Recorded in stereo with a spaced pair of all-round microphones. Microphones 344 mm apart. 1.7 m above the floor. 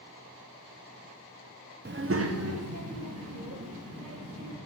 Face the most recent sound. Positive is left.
turn(degrees=-40)  # may be behind; listen again after turning